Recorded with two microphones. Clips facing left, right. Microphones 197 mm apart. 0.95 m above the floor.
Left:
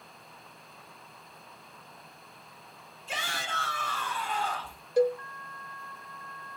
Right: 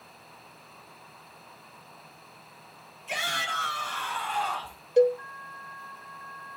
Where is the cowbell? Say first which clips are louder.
Right 4 dB; 20° right (ahead or behind), 0.6 m.